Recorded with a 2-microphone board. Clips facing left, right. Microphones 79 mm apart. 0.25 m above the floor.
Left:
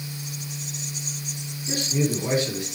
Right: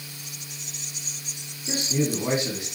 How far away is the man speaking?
About 2.5 m.